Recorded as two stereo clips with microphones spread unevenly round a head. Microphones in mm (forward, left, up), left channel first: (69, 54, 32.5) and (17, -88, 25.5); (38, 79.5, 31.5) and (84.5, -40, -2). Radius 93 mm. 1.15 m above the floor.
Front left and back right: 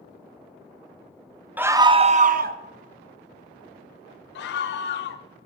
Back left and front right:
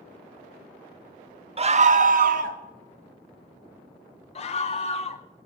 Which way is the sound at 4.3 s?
70° left.